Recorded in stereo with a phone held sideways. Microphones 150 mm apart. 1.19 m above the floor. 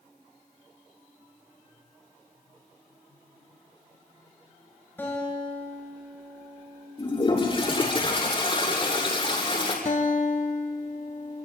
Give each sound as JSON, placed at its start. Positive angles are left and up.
{"t": 5.0, "sound": "a guitar", "side_deg": 15, "distance_m": 9.0}
{"t": 7.0, "sound": "a toilet flushing", "side_deg": 35, "distance_m": 8.0}
{"t": 9.8, "sound": "a guitar", "side_deg": 65, "distance_m": 2.5}